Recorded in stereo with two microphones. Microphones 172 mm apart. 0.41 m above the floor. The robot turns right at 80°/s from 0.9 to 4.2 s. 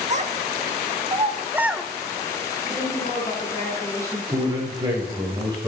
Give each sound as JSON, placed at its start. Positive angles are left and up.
{"t": 0.1, "sound": "a child speaking", "side_deg": -40, "distance_m": 0.5}
{"t": 2.6, "sound": "a woman speaking", "azimuth_deg": 90, "distance_m": 4.0}
{"t": 4.3, "sound": "a man speaking", "side_deg": -25, "distance_m": 1.5}